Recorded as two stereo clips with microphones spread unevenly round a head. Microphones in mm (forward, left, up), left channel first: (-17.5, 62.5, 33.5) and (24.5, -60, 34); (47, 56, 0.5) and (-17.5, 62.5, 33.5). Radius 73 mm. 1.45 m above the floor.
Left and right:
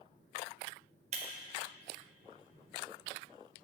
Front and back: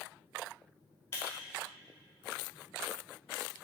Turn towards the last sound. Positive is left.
turn(degrees=-95)